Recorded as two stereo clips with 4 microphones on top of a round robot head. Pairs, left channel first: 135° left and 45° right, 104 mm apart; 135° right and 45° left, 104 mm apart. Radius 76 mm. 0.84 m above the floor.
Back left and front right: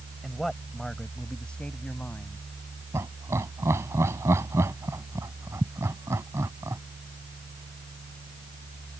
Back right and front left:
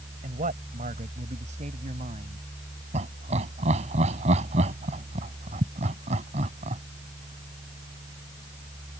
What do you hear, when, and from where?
0.2 s a man speaking: 45° left; by 2.4 s 60° left
2.9 s laughter: 25° left